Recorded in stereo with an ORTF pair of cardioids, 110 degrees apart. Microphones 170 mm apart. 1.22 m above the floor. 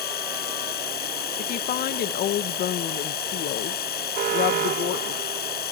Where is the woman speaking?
65° left.